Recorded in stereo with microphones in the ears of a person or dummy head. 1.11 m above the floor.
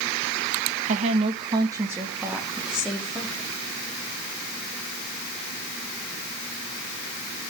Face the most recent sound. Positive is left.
turn(degrees=5)  # may be behind; listen again after turning